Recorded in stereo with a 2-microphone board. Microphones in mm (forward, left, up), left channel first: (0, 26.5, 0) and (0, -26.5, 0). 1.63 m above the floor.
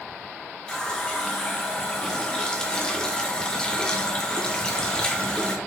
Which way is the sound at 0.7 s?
15° left (ahead or behind).